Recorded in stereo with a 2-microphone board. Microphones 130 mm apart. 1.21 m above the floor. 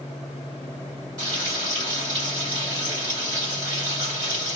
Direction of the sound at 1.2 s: 30° right (ahead or behind).